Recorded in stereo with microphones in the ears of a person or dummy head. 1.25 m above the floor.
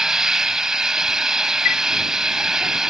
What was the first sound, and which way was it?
An engine running, 5° right (ahead or behind).